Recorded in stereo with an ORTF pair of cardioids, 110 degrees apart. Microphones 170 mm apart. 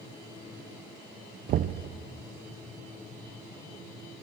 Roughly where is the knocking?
Ahead right.